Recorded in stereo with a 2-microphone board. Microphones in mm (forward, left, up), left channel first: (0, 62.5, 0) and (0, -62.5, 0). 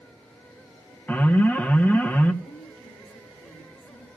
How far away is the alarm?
About 1.2 m.